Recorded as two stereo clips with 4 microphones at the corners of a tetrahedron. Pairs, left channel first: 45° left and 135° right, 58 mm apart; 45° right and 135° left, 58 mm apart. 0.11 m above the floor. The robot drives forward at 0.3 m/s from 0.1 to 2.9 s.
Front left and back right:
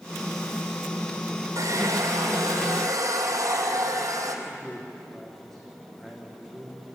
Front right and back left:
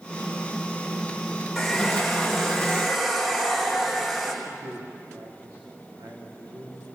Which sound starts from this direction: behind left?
A man speaking, at 4.5 s.